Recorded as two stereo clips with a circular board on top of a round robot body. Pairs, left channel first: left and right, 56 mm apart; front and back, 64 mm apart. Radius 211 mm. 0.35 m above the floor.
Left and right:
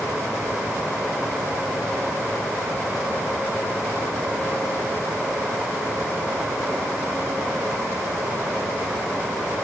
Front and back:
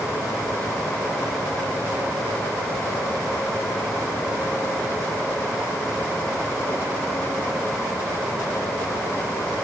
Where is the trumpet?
No trumpet in this recording.